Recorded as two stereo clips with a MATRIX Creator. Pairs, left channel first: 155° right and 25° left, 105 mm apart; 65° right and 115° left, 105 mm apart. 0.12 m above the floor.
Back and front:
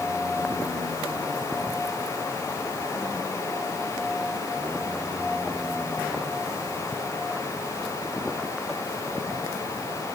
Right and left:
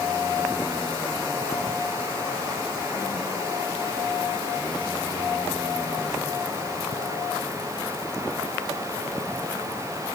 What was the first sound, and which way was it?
Only background noise.